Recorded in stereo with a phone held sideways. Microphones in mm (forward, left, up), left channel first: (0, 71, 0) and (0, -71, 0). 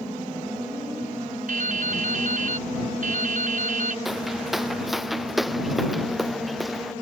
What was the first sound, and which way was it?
Dripping, 70° right (ahead or behind).